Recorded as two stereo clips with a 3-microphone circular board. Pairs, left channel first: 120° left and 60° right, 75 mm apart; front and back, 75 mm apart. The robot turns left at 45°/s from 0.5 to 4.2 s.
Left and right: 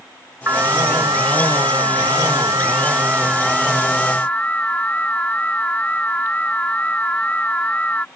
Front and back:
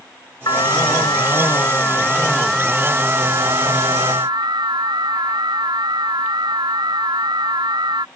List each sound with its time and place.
0.5 s an alarm: 5° right; by 8.1 s 170° right